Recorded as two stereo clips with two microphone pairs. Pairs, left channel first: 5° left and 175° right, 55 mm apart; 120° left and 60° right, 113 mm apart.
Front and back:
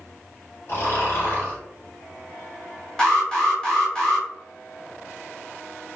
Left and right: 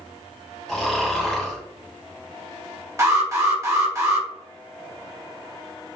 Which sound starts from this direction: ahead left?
Snoring, at 0.7 s.